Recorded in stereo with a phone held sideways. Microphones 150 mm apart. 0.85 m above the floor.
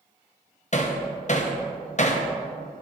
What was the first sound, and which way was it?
Hammering, 50° left (ahead or behind).